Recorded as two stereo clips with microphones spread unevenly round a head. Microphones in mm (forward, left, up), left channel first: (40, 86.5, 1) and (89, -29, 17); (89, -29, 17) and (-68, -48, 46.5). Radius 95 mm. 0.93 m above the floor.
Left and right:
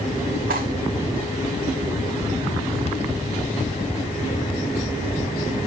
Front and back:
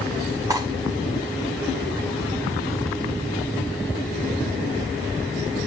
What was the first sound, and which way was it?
Cutlery clinking, 105° right.